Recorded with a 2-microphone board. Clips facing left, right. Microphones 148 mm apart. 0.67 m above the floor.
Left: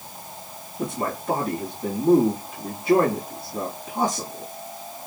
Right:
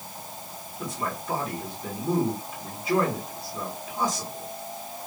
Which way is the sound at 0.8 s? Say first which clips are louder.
Left 5 dB; 75° left (ahead or behind).